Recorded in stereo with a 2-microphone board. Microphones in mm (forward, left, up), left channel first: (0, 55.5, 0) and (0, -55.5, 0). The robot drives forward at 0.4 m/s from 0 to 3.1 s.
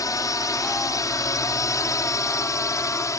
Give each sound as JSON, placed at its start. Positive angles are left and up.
{"t": 0.0, "sound": "a drone", "side_deg": 30}